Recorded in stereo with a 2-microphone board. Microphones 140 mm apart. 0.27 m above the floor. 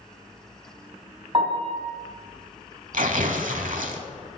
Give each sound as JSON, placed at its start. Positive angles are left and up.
{"t": 1.3, "sound": "a piano", "side_deg": -40, "distance_m": 1.8}
{"t": 2.9, "sound": "tearing paper", "side_deg": -70, "distance_m": 0.7}